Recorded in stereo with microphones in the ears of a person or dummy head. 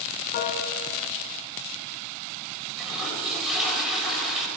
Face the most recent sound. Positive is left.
turn(degrees=0)  # may be behind; listen again after turning